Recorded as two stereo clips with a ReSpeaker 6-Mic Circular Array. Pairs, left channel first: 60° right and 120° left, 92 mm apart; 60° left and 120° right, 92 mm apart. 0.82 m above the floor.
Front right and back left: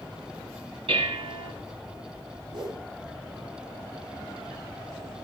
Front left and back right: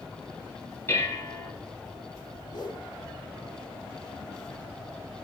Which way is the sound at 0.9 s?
120° left.